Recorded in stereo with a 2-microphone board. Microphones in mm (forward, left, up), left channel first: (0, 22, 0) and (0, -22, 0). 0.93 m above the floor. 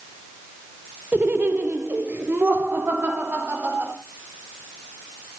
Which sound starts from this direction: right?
Laughter, at 1.1 s.